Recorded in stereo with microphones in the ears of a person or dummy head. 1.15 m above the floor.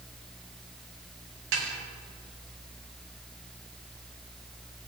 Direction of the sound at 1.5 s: 70° right (ahead or behind).